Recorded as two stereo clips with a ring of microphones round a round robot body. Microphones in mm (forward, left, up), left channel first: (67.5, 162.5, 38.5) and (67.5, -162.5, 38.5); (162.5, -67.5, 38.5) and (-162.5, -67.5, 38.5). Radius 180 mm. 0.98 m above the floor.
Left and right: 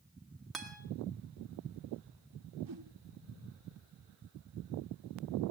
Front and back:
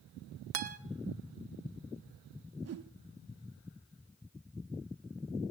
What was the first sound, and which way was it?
A guitar, straight behind.